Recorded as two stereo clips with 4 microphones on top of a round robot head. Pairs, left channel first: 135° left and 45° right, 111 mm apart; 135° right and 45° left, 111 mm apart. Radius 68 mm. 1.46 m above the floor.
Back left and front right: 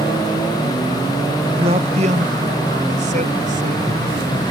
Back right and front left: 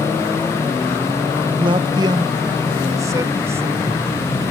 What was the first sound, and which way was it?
A man speaking, 5° right.